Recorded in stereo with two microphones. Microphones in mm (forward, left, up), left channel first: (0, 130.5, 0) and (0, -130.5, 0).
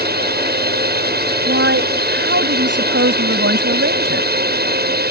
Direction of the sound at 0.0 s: 40° right (ahead or behind).